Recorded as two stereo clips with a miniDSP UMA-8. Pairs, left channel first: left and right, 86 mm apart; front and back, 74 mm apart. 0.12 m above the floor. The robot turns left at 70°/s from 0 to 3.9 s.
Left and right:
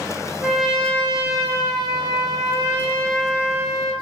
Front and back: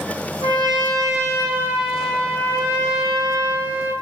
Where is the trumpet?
165° right, 0.9 m; by 3.9 s 50° right, 0.9 m.